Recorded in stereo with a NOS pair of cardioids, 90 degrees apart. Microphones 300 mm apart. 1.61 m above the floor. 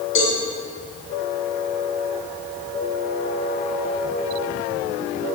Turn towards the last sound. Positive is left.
turn(degrees=45)